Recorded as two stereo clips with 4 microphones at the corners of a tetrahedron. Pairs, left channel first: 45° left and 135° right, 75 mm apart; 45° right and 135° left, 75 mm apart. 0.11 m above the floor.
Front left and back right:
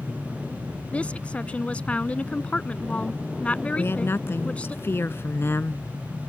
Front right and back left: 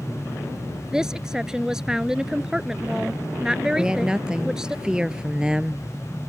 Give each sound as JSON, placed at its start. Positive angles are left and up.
{"t": 0.9, "sound": "a woman speaking", "azimuth_deg": 75}
{"t": 3.8, "sound": "a woman speaking", "azimuth_deg": 65}